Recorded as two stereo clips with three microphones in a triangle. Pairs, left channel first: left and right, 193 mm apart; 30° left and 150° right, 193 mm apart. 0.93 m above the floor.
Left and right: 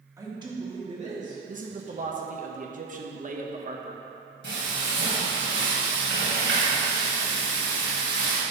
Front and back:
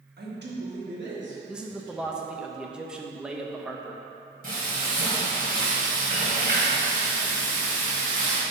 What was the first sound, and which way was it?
A man speaking, 165° right.